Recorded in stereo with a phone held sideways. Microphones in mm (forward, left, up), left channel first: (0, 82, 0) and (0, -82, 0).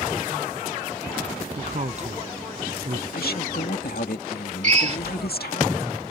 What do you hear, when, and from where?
1.6 s a man speaking: 45° right (ahead or behind)
3.1 s a woman speaking: 80° left
4.6 s a drill: 50° right (ahead or behind)